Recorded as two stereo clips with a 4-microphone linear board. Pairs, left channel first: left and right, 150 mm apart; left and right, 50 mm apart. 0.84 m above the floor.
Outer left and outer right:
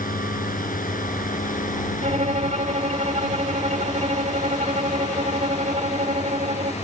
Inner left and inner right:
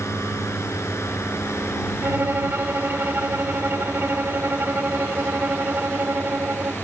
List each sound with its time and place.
0.0 s a drone: 80° left; by 6.8 s 50° left (ahead or behind)
2.0 s a violin: 55° right (ahead or behind)